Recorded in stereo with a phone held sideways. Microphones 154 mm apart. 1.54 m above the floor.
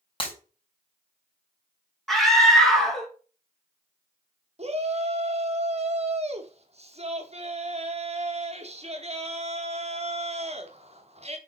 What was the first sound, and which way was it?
Breaking glass, 35° left (ahead or behind).